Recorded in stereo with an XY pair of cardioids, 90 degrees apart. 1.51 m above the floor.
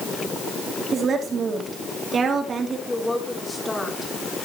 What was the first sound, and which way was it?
A woman speaking, 55° right.